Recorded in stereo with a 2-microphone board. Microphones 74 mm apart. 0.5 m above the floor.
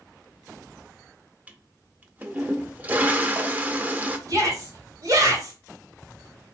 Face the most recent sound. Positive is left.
turn(degrees=-50)  # may be behind; listen again after turning